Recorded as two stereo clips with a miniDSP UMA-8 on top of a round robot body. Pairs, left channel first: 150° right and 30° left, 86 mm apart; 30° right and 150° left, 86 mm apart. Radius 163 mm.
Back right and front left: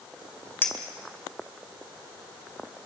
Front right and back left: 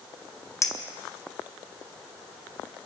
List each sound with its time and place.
0.6 s a clink: 85° right, 2 m